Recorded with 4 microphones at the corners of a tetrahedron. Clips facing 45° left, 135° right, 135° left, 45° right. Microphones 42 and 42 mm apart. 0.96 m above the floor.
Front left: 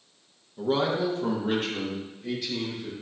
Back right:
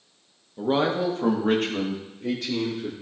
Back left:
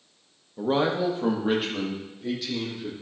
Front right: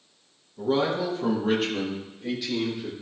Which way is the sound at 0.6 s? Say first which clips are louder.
Back right 2 dB, back left 1 dB; 160° left.